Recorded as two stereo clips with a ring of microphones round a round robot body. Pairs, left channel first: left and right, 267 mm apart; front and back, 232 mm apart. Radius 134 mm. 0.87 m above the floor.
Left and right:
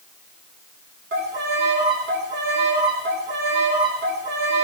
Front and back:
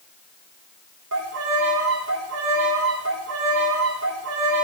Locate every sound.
1.1 s a violin: 140° right, 1.8 m